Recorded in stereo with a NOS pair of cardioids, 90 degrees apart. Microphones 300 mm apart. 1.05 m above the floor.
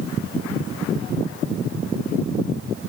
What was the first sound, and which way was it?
Only background noise.